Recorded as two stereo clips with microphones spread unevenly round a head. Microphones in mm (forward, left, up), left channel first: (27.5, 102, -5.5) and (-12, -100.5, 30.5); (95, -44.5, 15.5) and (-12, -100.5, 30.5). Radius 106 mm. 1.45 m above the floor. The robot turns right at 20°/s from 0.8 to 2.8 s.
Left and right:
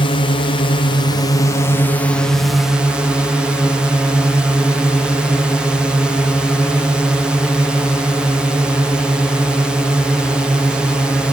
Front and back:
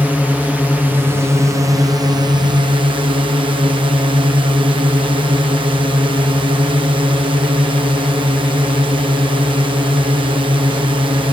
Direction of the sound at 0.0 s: 125° left.